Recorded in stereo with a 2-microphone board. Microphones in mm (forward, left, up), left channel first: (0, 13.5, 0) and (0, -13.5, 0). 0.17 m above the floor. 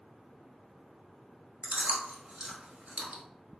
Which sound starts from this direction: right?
Chewing, at 1.6 s.